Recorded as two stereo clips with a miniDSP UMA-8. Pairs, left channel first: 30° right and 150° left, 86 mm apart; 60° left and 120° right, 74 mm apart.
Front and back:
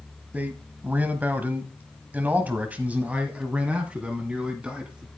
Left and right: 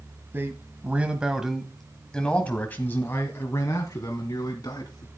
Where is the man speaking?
150° right, 1.5 m; by 5.1 s 75° left, 2 m.